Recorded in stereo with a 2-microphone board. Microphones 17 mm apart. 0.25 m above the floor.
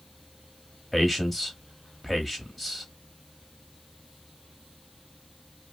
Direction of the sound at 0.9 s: 10° right (ahead or behind).